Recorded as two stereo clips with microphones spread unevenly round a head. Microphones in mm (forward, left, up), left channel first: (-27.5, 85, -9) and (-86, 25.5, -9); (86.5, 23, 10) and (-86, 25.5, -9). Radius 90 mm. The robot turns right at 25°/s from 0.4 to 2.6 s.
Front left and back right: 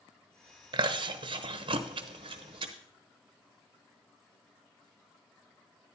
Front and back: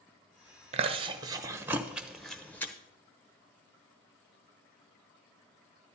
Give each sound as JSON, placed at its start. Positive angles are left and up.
{"t": 0.7, "sound": "chewing", "azimuth_deg": -130, "distance_m": 0.8}